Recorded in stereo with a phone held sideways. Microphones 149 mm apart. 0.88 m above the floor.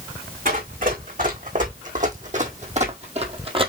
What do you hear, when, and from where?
0.5 s running footsteps: 60° right (ahead or behind), 2.5 m; by 3.7 s 35° right (ahead or behind), 1.1 m